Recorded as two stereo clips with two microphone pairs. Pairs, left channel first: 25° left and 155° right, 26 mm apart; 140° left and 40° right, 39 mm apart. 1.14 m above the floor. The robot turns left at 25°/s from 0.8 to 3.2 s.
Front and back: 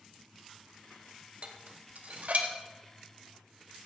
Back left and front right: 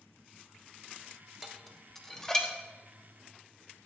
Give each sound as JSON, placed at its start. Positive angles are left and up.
{"t": 1.4, "sound": "dishes clattering", "azimuth_deg": -125, "distance_m": 1.0}